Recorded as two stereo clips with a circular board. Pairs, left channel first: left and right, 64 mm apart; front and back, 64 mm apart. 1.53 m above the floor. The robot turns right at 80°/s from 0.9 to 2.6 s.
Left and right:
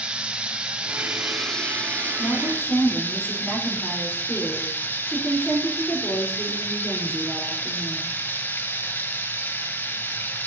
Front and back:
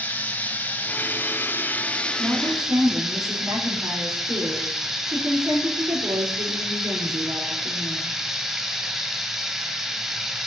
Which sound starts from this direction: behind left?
A woman speaking, at 2.2 s.